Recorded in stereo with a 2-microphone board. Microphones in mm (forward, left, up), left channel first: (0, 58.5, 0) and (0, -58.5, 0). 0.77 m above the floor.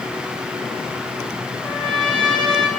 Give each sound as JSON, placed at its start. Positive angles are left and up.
{"t": 1.6, "sound": "a trumpet", "side_deg": 5, "distance_m": 9.0}